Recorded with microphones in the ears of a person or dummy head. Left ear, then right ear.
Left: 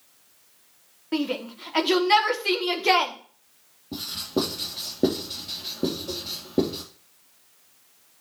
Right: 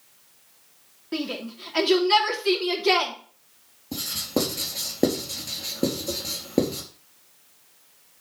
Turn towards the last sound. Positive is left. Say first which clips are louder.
# right 1 dB
turn(degrees=-60)  # may be behind; listen again after turning